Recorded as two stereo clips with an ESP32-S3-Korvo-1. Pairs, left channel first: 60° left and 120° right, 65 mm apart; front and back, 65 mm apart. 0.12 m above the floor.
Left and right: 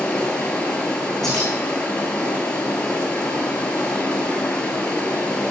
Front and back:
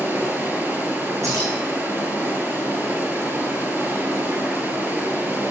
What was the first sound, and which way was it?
Running water, 130° left.